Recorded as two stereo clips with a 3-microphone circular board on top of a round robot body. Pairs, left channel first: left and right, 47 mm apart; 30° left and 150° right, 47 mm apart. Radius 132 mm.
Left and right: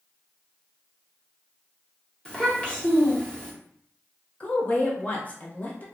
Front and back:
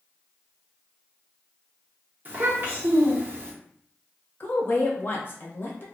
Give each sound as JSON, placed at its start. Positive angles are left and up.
{"t": 2.2, "sound": "a child speaking", "azimuth_deg": 160, "distance_m": 1.2}
{"t": 4.4, "sound": "a woman speaking", "azimuth_deg": 50, "distance_m": 1.1}